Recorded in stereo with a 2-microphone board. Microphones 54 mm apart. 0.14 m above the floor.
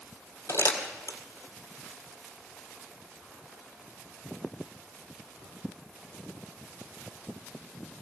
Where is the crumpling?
70° left (ahead or behind), 1.8 m.